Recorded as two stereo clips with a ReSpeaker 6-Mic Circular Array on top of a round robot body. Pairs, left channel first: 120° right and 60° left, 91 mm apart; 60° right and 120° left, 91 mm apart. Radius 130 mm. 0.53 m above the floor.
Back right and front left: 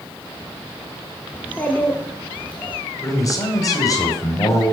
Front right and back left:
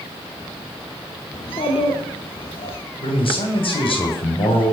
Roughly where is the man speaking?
Right.